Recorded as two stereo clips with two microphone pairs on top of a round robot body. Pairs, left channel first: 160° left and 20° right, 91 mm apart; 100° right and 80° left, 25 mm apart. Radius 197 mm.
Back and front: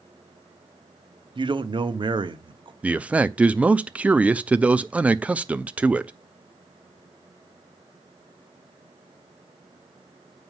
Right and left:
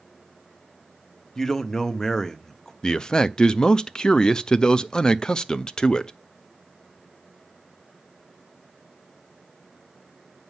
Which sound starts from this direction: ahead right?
A man speaking, at 1.4 s.